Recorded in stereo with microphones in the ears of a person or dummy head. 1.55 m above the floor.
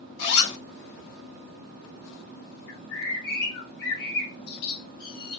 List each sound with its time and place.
0.2 s a zipper: 65° left (ahead or behind), 3 m
2.7 s a bird: 70° left (ahead or behind), 3 m